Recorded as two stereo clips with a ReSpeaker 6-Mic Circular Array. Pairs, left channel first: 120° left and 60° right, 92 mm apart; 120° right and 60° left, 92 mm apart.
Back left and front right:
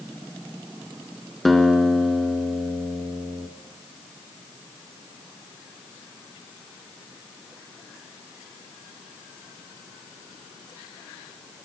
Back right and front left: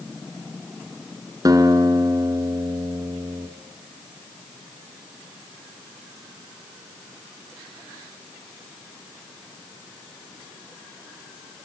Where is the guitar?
30° left, 2 m.